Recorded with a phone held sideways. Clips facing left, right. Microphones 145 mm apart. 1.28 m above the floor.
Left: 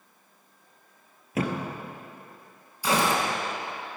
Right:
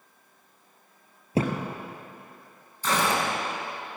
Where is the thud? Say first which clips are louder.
Right 2 dB; 30° right (ahead or behind), 2 m.